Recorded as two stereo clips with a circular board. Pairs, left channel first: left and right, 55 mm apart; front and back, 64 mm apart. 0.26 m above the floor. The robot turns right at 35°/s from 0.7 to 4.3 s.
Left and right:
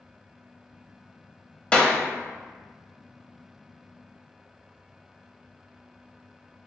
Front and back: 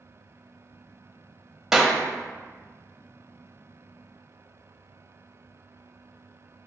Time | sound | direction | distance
1.7 | a clap | 110° left | 0.7 m